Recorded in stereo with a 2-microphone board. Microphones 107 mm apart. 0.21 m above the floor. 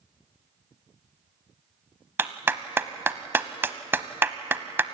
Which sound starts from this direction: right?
A clap, at 2.2 s.